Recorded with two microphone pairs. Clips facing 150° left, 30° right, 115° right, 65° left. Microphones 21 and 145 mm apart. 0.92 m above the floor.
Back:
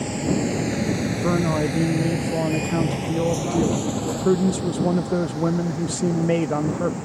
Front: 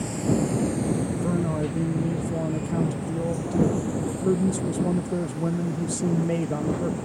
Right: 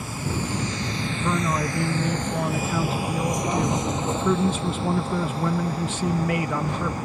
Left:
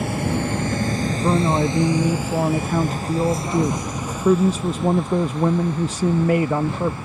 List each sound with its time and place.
0.0 s a vehicle: 85° left; by 7.0 s 165° right
1.1 s a man speaking: 110° left